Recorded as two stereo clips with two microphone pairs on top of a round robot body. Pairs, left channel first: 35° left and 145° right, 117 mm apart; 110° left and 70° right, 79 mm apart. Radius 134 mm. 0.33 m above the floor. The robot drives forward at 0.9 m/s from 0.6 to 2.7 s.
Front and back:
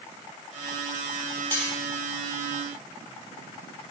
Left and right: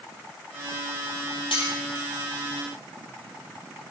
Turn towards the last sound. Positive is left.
turn(degrees=110)